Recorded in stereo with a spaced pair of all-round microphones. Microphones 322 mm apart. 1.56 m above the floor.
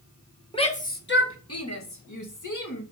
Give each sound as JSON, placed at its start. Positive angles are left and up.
{"t": 0.5, "sound": "a shout", "side_deg": 15, "distance_m": 1.3}